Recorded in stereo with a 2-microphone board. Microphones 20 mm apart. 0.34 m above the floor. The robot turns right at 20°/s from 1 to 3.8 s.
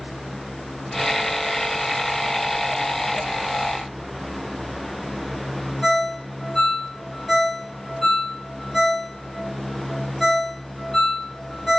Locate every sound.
5.8 s a ringtone: 15° left (ahead or behind), 1.4 m